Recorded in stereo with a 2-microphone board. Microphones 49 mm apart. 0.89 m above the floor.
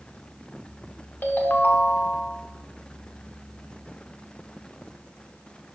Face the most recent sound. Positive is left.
turn(degrees=40)  # may be behind; listen again after turning